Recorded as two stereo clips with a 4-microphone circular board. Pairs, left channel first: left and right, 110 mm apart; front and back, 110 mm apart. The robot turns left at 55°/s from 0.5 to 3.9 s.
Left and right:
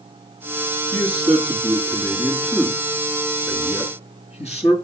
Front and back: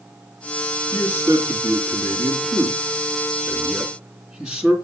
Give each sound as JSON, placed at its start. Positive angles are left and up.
{"t": 0.9, "sound": "a man speaking", "azimuth_deg": -100, "distance_m": 3.0}